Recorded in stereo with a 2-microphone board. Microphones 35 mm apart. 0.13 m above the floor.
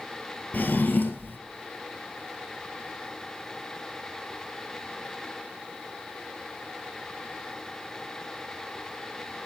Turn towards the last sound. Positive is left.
turn(degrees=60)  # may be behind; listen again after turning